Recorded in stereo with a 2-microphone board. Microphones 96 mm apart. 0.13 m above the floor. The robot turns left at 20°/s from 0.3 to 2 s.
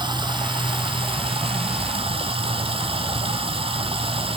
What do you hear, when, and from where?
0.0 s running water: 55° right, 1.2 m; by 4.4 s 90° right, 1.2 m